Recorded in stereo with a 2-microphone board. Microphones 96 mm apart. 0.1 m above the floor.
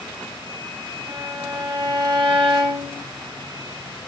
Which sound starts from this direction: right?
A violin, at 1.1 s.